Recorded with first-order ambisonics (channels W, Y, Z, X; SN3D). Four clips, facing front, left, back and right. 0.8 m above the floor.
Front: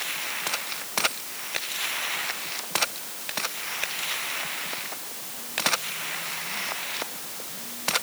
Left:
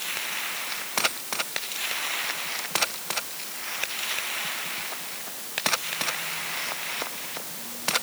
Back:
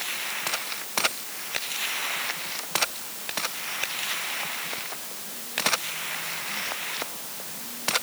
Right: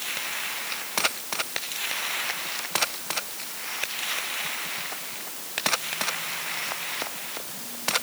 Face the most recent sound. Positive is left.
No sound to turn to.